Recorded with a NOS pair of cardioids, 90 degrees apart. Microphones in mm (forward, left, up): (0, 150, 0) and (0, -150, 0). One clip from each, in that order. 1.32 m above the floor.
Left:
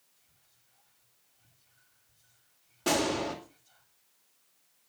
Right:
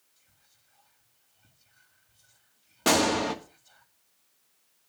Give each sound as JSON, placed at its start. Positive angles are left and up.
{"t": 0.2, "sound": "whispering", "azimuth_deg": -50, "distance_m": 2.5}
{"t": 2.9, "sound": "a gunshot", "azimuth_deg": -55, "distance_m": 2.5}